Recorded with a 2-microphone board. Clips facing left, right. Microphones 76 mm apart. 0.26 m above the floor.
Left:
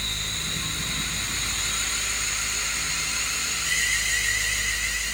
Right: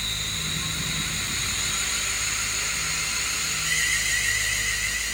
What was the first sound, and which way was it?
Only background noise.